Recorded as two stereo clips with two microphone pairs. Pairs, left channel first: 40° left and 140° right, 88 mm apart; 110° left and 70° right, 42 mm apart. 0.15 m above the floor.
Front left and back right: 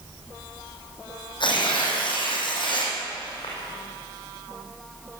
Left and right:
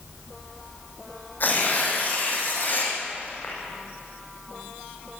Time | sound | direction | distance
1.4 | tearing paper | 70° left | 6 m